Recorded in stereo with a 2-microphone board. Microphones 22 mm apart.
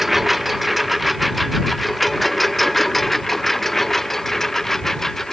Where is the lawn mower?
5° right (ahead or behind); by 5.3 s 15° left (ahead or behind).